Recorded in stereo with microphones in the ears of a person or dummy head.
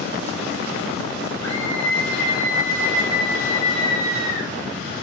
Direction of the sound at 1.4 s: 20° left (ahead or behind).